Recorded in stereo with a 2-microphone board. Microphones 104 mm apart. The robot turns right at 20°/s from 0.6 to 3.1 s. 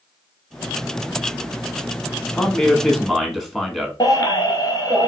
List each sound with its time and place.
2.3 s a man speaking: 5° left (ahead or behind), 1.1 m; by 3.9 s centre (ahead or behind), 1.1 m
4.0 s a baby crying: 35° left (ahead or behind), 1.1 m